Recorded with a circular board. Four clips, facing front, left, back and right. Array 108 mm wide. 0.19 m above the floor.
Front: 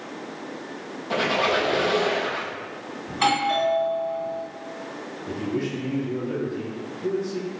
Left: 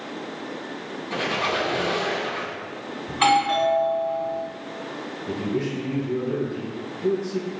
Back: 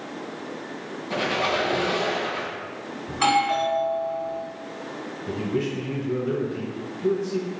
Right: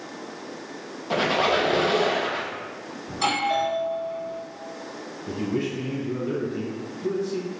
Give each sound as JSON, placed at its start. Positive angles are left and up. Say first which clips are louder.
{"t": 1.1, "sound": "a squeak", "louder": "right 4 dB, front 2 dB", "azimuth_deg": -65, "distance_m": 0.9}
{"t": 3.1, "sound": "a doorbell", "louder": "left 5 dB, back 1 dB", "azimuth_deg": 80, "distance_m": 2.0}
{"t": 5.3, "sound": "a man speaking", "louder": "even, back 1 dB", "azimuth_deg": -130, "distance_m": 1.7}